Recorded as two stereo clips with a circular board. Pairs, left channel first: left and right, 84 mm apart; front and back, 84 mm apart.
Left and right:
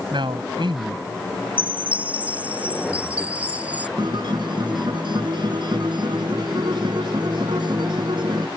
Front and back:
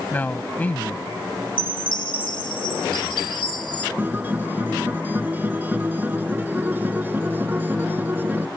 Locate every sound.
0.1 s a man speaking: 70° right
1.6 s a chime: 15° right
4.0 s a guitar: 115° right